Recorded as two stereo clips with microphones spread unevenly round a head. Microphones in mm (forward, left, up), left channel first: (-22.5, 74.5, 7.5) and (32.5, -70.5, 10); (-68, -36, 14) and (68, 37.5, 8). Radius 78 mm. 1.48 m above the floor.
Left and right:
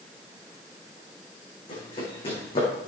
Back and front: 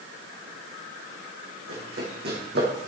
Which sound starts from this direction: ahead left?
Running footsteps, at 1.7 s.